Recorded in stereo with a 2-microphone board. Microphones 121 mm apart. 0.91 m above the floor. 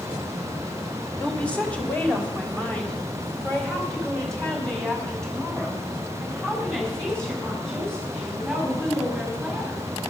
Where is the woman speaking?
10° left (ahead or behind), 2.5 m; by 9.8 s 5° left (ahead or behind), 10.5 m.